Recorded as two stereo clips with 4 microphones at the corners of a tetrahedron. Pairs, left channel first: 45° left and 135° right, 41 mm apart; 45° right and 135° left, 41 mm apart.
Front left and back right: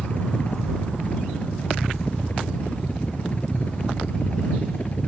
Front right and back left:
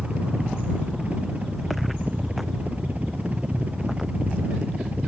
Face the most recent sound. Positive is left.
turn(degrees=90)